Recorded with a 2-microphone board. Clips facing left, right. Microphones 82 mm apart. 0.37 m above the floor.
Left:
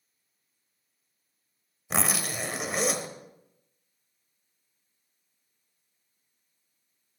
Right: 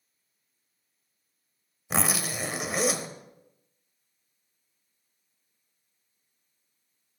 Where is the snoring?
I don't hear snoring.